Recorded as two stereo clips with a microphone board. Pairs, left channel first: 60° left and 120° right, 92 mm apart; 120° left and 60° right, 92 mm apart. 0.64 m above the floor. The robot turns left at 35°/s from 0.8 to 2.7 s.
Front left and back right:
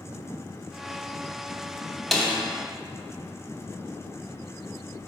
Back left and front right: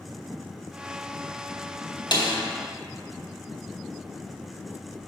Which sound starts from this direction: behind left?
A snare drum, at 2.1 s.